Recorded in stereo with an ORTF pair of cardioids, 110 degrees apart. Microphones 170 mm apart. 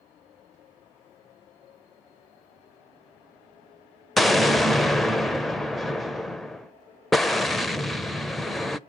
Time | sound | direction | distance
4.2 | an explosion | straight ahead | 0.5 m